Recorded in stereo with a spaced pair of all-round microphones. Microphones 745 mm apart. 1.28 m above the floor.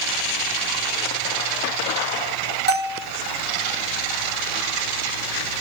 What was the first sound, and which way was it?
A bell, 15° right (ahead or behind).